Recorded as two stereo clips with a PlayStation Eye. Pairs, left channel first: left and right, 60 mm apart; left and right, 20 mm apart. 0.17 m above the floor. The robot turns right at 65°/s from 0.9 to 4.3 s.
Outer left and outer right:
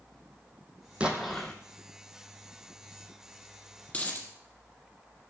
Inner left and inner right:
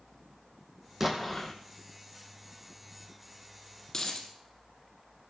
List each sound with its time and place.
1.0 s an explosion: 20° right, 1.8 m; by 1.5 s 15° left, 1.8 m
3.9 s a dropped coin: 20° left (ahead or behind), 2.5 m; by 4.3 s 45° left (ahead or behind), 2.5 m